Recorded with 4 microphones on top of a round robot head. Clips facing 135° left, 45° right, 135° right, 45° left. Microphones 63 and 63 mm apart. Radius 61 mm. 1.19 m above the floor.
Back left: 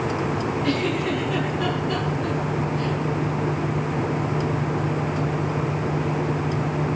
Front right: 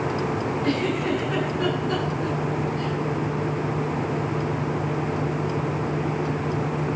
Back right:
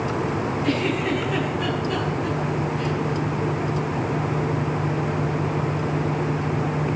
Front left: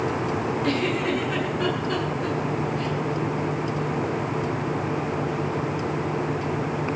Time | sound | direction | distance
0.6 | a giggle | 5° left | 10 m